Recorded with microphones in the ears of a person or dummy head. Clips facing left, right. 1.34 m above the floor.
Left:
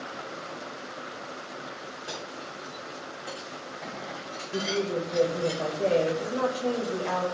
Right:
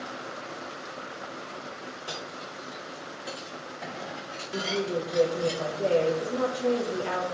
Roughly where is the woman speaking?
Centre.